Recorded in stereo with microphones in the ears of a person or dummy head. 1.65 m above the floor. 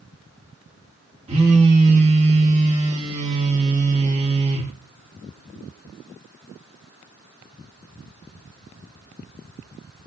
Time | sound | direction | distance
1.3 | a phone buzzing | 35° right (ahead or behind) | 2 m